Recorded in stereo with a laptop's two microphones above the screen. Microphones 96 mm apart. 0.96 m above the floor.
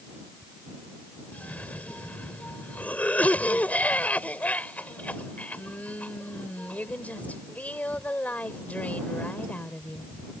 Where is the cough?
15° left (ahead or behind).